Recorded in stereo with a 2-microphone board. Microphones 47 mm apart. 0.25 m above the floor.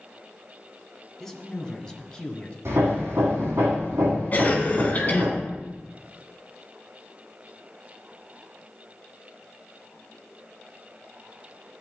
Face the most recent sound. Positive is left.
turn(degrees=40)  # may be behind; listen again after turning